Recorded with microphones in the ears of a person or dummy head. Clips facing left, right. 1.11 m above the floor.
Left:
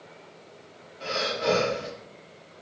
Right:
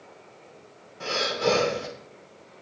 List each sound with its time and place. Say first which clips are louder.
1.0 s breathing: right 2 dB; 60° right (ahead or behind), 3 m